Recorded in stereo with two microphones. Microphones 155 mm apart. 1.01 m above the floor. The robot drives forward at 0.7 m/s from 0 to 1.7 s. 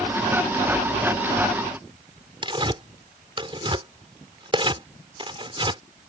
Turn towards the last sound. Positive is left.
turn(degrees=-35)  # may be behind; listen again after turning